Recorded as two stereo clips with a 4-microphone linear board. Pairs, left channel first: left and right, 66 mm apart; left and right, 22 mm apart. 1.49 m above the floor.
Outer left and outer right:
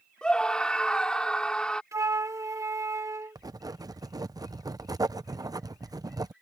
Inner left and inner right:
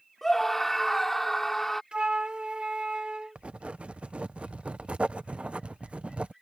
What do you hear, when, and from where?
0.2 s a scream: 15° left (ahead or behind)
1.9 s a flute: 50° right (ahead or behind)
3.4 s writing: 65° right (ahead or behind)